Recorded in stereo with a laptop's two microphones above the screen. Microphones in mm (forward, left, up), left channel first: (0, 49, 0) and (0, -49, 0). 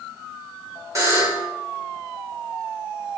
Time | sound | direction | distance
0.9 | a buzzer | 35° right (ahead or behind) | 1.8 m